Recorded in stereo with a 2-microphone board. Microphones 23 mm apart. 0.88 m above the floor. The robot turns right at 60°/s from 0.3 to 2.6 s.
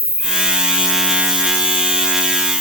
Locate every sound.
0.0 s an insect: 65° right, 1.9 m; by 2.6 s 75° left, 1.9 m